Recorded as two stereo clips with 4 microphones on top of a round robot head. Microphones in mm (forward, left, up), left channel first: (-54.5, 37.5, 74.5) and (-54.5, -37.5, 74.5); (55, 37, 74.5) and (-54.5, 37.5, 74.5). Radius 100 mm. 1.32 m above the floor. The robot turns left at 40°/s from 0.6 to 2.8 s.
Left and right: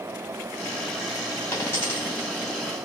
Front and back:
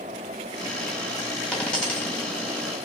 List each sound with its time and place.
1.5 s a dropped coin: 80° left, 1.0 m; by 2.4 s 45° left, 1.0 m